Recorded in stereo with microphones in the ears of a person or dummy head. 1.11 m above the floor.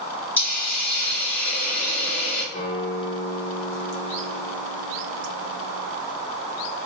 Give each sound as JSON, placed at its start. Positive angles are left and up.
{"t": 0.4, "sound": "a hiss", "side_deg": 10, "distance_m": 1.7}
{"t": 2.5, "sound": "a guitar", "side_deg": 30, "distance_m": 1.4}